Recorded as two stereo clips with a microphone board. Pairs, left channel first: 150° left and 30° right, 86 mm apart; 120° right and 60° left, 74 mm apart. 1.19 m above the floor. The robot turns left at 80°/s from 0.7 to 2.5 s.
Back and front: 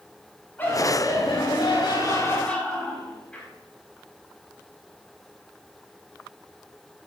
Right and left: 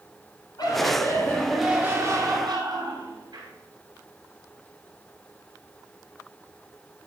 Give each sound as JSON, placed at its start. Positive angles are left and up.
{"t": 0.6, "sound": "laughter", "azimuth_deg": -145, "distance_m": 6.5}